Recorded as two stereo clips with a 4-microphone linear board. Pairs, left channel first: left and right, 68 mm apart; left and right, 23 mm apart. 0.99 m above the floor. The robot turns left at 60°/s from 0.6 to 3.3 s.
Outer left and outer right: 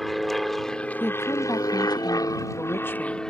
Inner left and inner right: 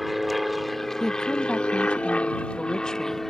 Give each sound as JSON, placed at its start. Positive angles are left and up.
{"t": 0.0, "sound": "an aircraft", "side_deg": 0}
{"t": 1.0, "sound": "a woman speaking", "azimuth_deg": 150}